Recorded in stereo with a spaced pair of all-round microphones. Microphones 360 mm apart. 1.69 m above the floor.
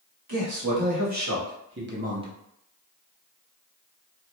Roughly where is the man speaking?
Right.